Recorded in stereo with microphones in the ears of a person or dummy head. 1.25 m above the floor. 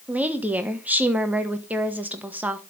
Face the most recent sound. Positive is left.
turn(degrees=-5)  # may be behind; listen again after turning